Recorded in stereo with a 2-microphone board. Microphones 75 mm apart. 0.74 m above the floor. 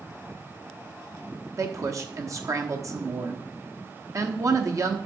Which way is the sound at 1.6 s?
45° right (ahead or behind).